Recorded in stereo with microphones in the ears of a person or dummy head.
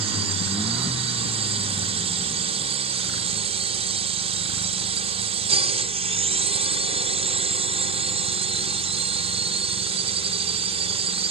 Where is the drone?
40° right (ahead or behind).